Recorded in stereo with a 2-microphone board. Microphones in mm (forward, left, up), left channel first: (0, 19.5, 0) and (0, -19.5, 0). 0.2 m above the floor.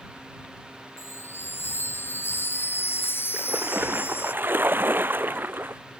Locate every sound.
1.0 s a chime: 75° left (ahead or behind)
3.3 s a splash: 60° right (ahead or behind)